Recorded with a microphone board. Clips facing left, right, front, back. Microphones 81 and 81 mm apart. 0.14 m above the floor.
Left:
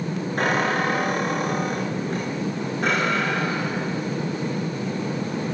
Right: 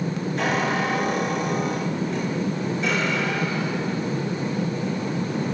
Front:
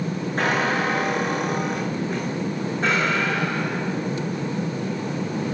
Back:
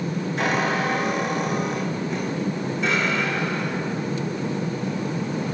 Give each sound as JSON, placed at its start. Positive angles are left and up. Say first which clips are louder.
{"t": 0.4, "sound": "a squeak", "louder": "left 2 dB, front 1 dB", "azimuth_deg": 50, "distance_m": 8.0}